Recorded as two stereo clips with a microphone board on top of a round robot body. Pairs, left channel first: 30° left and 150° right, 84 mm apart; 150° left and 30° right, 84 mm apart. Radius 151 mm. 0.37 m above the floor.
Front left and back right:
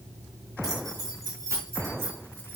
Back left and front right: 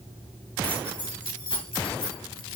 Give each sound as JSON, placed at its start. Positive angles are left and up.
{"t": 0.6, "sound": "keys jangling", "azimuth_deg": 170, "distance_m": 4.0}